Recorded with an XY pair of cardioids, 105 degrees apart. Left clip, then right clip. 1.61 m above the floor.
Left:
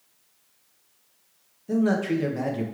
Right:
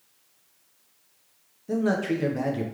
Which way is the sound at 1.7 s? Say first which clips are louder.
Left 1 dB; straight ahead.